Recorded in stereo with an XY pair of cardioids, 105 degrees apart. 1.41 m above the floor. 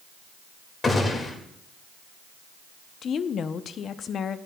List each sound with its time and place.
0.8 s a gunshot: 30° left, 2 m
3.0 s a woman speaking: 55° left, 0.7 m